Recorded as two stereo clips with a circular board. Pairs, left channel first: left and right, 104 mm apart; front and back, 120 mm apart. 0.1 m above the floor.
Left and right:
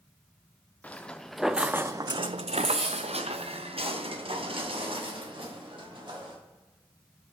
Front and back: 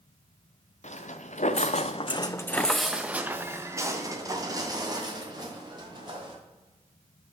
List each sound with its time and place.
0.8 s footsteps: 15° left, 1.0 m; by 6.3 s 130° right, 3 m